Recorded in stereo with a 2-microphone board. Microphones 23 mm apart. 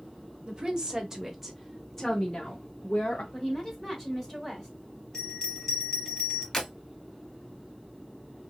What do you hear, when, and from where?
0.5 s a woman speaking: 40° right (ahead or behind), 1.0 m; by 3.2 s 45° left (ahead or behind), 1.1 m
3.3 s a woman speaking: 15° left (ahead or behind), 1.4 m
5.1 s a bell: 25° left (ahead or behind), 1.4 m
6.5 s breaking glass: 20° left (ahead or behind), 1.6 m